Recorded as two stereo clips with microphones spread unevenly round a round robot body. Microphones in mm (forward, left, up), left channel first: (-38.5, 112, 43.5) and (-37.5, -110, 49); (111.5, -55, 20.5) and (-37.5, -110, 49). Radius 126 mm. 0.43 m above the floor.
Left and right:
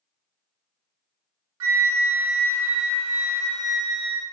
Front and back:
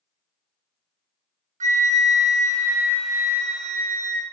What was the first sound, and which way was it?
A flute, 115° right.